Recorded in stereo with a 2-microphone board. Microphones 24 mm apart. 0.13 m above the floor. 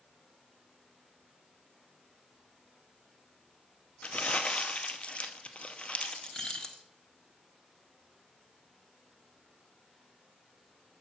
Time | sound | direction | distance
4.0 | crumpling | 55° left (ahead or behind) | 0.7 m
6.0 | keys jangling | 30° left (ahead or behind) | 1.0 m